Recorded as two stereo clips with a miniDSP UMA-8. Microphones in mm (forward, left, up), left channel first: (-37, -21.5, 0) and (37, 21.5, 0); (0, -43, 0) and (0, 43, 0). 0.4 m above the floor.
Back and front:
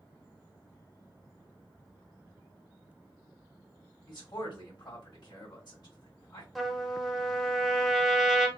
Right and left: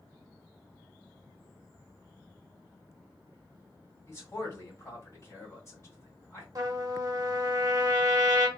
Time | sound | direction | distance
4.1 | a man speaking | 135° right | 1.7 m
6.5 | a trumpet | 120° left | 0.6 m